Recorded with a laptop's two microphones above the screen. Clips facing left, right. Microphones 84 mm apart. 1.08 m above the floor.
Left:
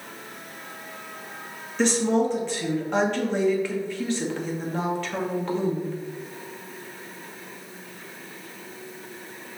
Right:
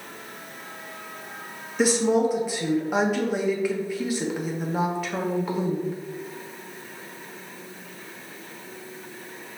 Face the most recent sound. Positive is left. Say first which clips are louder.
# right 1 dB
turn(degrees=-10)  # may be behind; listen again after turning